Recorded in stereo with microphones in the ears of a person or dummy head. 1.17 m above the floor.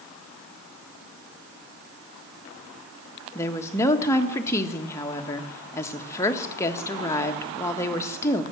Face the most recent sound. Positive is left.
turn(degrees=15)  # may be behind; listen again after turning